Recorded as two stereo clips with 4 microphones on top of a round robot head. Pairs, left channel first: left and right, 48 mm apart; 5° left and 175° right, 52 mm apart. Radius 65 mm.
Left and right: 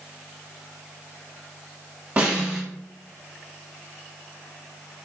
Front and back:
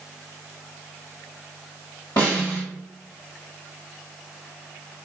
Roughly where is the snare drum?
Ahead right.